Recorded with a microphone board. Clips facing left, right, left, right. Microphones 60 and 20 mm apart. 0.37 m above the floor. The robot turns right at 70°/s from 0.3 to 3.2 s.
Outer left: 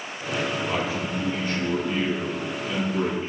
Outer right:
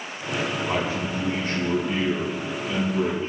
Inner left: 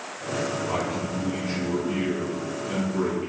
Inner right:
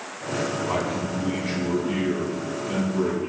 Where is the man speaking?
155° right, 2.5 m; by 3.3 s 25° left, 2.5 m.